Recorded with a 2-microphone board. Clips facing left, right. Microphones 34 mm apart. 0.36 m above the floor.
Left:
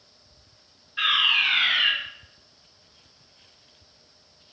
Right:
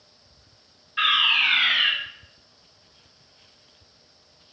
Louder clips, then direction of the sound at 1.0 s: Right 1 dB; 20° right (ahead or behind).